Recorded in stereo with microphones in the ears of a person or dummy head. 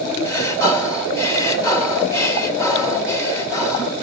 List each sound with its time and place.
0.2 s breathing: 20° left (ahead or behind), 2 m